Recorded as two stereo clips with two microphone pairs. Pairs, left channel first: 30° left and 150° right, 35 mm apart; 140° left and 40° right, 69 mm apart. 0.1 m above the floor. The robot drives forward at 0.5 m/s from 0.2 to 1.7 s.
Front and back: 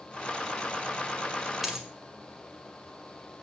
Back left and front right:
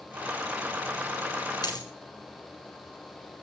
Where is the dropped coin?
135° left, 1.9 m.